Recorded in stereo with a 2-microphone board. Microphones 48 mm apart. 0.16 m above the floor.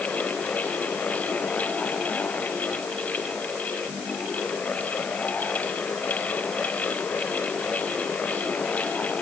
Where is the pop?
No pop in this recording.